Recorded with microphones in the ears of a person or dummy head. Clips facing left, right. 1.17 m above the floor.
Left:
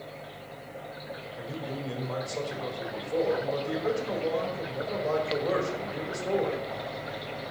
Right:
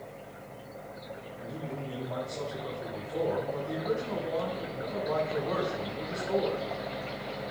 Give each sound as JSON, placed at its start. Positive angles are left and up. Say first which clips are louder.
{"t": 1.4, "sound": "a man speaking", "louder": "left 2 dB", "side_deg": 85, "distance_m": 4.0}